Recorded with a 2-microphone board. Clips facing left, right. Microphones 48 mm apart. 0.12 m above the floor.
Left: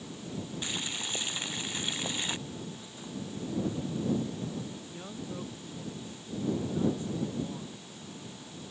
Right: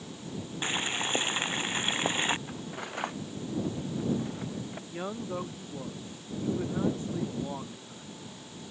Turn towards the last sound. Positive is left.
turn(degrees=-40)  # may be behind; listen again after turning